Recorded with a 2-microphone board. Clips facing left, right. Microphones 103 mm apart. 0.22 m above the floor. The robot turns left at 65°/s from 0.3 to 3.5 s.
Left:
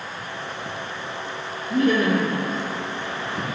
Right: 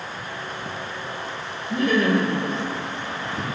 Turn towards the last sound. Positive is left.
turn(degrees=30)